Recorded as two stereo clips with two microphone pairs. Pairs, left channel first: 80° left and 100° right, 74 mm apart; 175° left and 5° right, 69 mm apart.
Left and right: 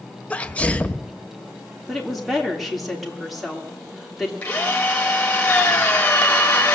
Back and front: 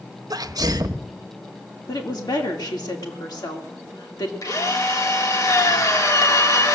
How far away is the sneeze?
About 1.0 m.